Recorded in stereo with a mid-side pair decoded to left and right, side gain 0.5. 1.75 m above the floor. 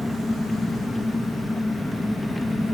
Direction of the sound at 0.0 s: 15° left.